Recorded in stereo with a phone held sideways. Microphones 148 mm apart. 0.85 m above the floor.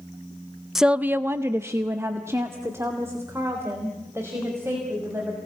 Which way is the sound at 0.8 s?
Centre (ahead or behind).